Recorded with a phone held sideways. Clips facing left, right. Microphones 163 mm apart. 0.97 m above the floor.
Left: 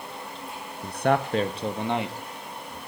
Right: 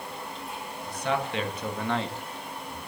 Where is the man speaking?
65° left (ahead or behind), 0.8 m; by 2.8 s centre (ahead or behind), 1.9 m.